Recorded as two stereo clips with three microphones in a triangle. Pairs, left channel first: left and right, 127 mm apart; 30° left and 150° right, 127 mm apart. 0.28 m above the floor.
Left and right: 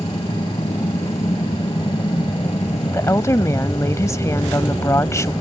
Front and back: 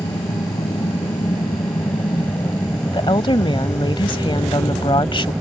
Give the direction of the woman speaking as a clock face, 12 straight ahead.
11 o'clock.